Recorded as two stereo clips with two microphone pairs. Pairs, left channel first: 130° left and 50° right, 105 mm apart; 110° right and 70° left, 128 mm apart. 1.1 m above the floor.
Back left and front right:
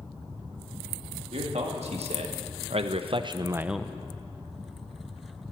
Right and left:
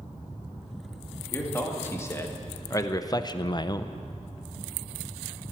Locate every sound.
1.3 s a man speaking: 40° right, 2 m; by 4.0 s 165° right, 0.5 m